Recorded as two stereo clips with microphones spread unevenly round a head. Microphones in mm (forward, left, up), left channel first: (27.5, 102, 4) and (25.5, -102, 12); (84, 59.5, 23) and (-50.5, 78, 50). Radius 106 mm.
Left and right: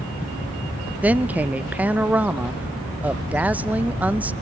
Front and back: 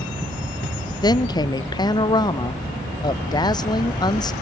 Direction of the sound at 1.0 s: 10° right.